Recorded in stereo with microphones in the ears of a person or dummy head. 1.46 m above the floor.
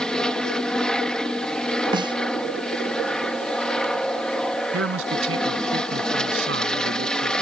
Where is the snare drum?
25° right (ahead or behind).